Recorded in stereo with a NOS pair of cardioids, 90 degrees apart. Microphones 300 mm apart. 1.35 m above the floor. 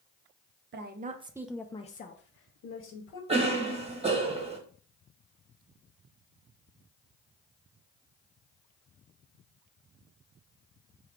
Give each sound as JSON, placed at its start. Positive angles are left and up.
{"t": 0.7, "sound": "a woman speaking", "azimuth_deg": -40, "distance_m": 0.7}
{"t": 3.3, "sound": "a cough", "azimuth_deg": -20, "distance_m": 1.5}